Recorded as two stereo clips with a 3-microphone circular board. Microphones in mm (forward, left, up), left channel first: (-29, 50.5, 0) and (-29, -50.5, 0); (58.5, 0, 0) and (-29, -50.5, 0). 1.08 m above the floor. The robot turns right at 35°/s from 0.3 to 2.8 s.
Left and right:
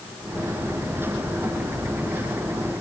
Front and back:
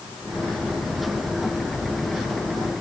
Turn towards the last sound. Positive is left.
No sound to turn to.